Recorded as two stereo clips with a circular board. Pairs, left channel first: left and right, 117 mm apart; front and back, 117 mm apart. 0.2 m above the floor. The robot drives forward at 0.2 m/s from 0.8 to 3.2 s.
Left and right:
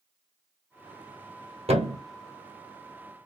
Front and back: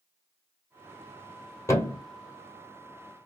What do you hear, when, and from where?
1.7 s a thud: 65° right, 1.3 m; by 2.0 s 70° right, 1.3 m